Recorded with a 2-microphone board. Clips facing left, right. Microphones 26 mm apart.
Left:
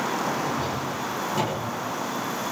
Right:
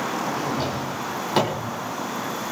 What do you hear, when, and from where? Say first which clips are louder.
0.4 s a drawer: right 1 dB; 85° right, 3.5 m